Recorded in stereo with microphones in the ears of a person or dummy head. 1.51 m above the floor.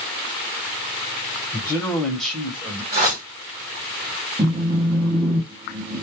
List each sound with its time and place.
1.5 s a man speaking: 15° left (ahead or behind), 1.0 m; by 2.8 s 25° right (ahead or behind), 0.8 m
2.9 s a whoosh: 40° right (ahead or behind), 1.0 m
4.4 s a phone buzzing: 20° right (ahead or behind), 0.7 m